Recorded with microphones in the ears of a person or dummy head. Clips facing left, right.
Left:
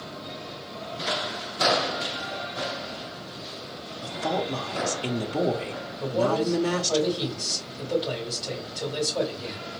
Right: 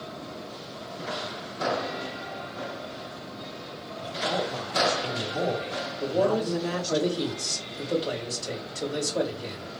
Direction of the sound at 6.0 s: 25° right (ahead or behind).